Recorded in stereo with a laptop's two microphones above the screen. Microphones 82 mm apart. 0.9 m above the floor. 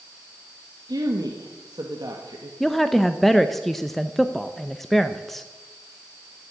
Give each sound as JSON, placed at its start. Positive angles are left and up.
{"t": 0.9, "sound": "a woman speaking", "side_deg": -55, "distance_m": 1.5}
{"t": 2.6, "sound": "a woman speaking", "side_deg": 5, "distance_m": 0.5}